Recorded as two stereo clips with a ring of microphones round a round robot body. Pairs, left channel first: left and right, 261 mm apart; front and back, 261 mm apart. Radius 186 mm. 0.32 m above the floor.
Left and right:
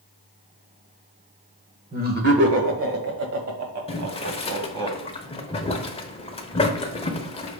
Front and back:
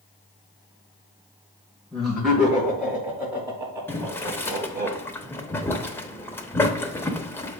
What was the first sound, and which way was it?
Laughter, 90° right.